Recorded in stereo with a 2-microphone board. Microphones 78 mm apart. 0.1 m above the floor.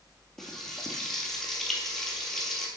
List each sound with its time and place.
0.4 s frying: 5° left (ahead or behind), 1.8 m